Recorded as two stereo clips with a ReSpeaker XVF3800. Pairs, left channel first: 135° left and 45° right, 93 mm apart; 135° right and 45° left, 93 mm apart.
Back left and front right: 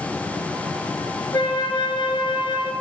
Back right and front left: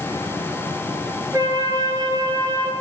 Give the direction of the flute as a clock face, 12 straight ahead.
9 o'clock.